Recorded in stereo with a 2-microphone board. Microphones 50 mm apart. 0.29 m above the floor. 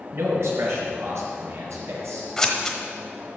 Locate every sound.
0.1 s a man speaking: 65° right (ahead or behind), 3.5 m; by 2.3 s 75° right (ahead or behind), 5 m
2.4 s scissors: 10° left (ahead or behind), 1.1 m